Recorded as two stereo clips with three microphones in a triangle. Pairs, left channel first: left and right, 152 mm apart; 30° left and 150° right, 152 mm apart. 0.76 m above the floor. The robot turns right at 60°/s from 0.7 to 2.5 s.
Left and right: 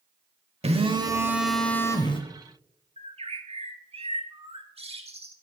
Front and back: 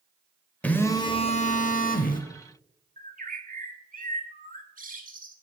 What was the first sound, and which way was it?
A phone buzzing, 50° right.